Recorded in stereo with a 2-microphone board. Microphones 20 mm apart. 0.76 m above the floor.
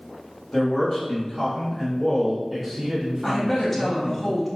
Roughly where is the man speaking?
Left.